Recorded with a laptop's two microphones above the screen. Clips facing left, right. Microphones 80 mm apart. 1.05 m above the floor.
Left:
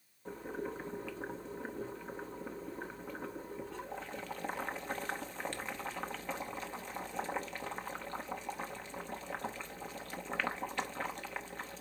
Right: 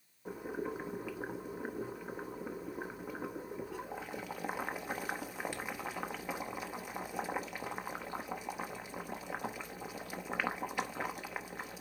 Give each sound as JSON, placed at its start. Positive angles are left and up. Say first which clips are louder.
{"t": 0.2, "sound": "boiling", "louder": "right 2 dB", "side_deg": -10, "distance_m": 0.9}